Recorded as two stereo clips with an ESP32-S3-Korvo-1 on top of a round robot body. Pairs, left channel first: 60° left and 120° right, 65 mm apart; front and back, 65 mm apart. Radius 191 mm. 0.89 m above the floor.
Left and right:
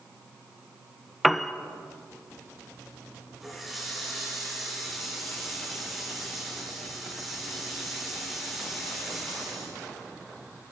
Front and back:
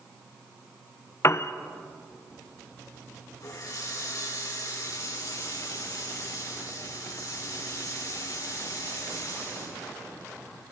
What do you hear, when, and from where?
1.2 s a piano: 30° right, 1.1 m
3.4 s a running tap: 30° right, 8 m